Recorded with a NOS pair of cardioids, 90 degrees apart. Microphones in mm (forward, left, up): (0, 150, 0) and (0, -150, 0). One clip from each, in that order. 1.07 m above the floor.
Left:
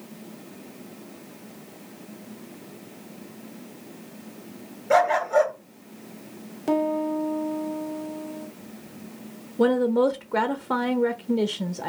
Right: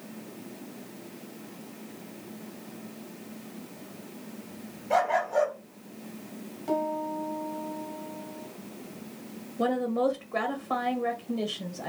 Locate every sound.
4.9 s a dog barking: 50° left, 2.5 m
6.7 s a piano: 60° left, 1.7 m
9.6 s a woman speaking: 40° left, 0.8 m